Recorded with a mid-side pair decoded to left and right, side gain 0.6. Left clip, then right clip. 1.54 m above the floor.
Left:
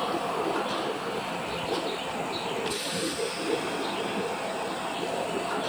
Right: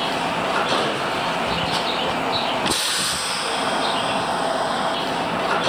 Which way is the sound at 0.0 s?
55° right.